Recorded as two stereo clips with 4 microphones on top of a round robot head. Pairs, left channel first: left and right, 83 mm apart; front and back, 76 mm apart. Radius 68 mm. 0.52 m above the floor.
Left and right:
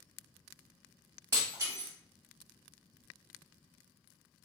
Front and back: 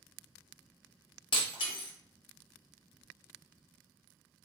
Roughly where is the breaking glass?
Ahead right.